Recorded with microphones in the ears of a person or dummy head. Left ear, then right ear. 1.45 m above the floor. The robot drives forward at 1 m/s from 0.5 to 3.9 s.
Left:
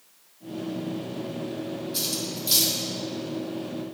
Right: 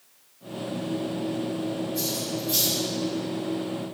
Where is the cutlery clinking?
60° left (ahead or behind), 2.5 m; by 2.7 s 75° left (ahead or behind), 2 m.